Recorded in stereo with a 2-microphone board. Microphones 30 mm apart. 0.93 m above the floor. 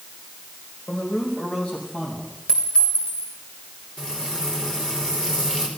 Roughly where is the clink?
Left.